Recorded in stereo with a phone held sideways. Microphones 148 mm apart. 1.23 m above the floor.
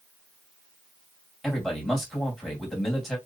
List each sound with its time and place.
1.4 s a man speaking: 5° left (ahead or behind), 2.5 m